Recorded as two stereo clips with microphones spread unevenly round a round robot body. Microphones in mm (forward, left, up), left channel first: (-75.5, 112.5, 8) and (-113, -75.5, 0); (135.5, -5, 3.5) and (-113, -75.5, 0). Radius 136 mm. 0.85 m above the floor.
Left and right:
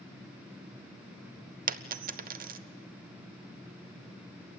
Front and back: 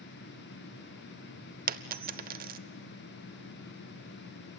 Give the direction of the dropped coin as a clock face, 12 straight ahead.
4 o'clock.